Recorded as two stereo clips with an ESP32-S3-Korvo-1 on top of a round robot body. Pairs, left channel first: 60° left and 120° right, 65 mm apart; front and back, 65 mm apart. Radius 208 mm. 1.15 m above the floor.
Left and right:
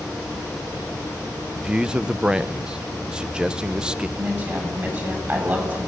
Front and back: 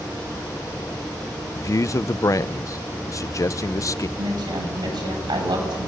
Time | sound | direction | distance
1.6 | a man speaking | 40° right | 0.8 m
4.2 | a woman speaking | straight behind | 9 m